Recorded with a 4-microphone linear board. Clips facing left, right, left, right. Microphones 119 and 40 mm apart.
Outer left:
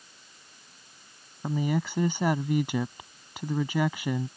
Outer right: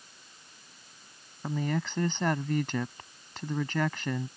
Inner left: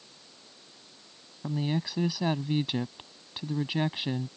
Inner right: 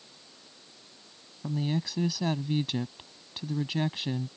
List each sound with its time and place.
1.4 s a woman speaking: 10° left (ahead or behind)